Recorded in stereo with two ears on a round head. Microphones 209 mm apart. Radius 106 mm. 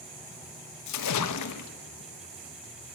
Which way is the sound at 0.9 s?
85° left.